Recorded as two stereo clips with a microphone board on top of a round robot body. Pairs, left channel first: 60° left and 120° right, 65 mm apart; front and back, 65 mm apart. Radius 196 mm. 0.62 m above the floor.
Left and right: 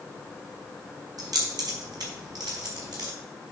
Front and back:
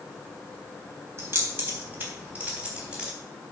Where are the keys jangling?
130° right, 3.5 m; by 3.1 s 105° right, 3.5 m.